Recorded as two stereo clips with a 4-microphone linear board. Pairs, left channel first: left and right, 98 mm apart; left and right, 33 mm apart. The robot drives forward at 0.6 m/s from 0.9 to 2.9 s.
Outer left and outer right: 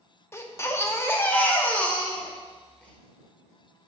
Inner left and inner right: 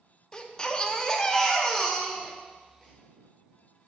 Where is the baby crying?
25° left (ahead or behind), 0.6 m; by 2.9 s 10° left (ahead or behind), 1.6 m.